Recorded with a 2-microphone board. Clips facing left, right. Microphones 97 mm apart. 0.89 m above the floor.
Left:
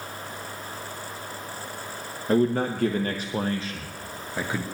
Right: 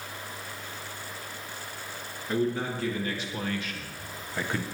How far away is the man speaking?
About 1.0 m.